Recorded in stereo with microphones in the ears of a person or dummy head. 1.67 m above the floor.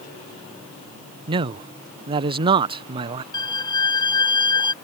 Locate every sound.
1.3 s a man speaking: 25° right (ahead or behind)
3.3 s a violin: 25° left (ahead or behind)